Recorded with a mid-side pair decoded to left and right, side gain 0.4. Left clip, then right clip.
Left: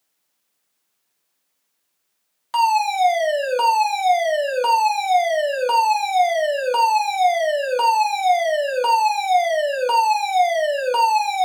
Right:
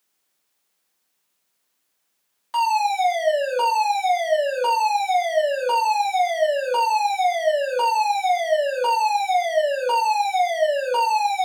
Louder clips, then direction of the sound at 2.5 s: Left 2 dB; 45° left.